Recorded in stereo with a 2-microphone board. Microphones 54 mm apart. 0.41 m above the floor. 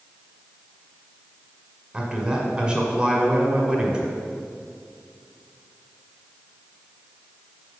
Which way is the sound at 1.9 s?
20° right (ahead or behind).